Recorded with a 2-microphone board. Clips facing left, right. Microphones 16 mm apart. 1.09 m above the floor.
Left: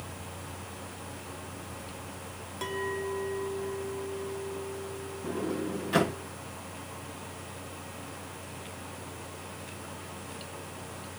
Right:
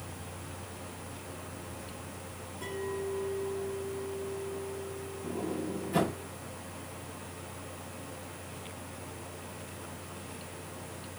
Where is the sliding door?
55° left (ahead or behind), 3 m.